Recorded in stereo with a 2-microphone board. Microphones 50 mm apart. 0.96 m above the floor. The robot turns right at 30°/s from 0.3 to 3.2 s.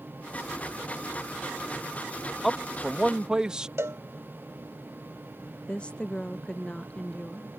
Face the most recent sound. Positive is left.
turn(degrees=20)  # may be behind; listen again after turning